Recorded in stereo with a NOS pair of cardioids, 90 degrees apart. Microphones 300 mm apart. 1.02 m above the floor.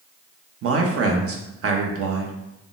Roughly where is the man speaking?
Ahead right.